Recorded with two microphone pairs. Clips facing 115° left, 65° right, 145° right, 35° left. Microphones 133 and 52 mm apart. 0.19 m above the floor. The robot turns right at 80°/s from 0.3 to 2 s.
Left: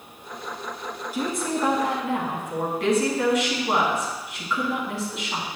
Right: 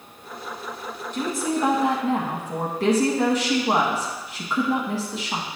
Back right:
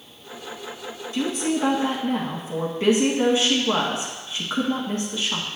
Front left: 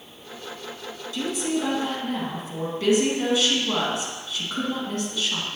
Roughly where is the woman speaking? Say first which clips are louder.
Right 2 dB, back right 2 dB; behind.